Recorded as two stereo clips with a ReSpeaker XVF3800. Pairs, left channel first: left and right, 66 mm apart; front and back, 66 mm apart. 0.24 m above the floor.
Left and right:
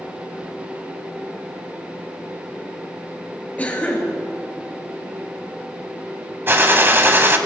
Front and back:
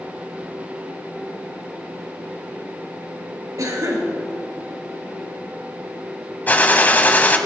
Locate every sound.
3.6 s a cough: 155° left, 3.5 m
6.5 s a gunshot: 50° right, 1.0 m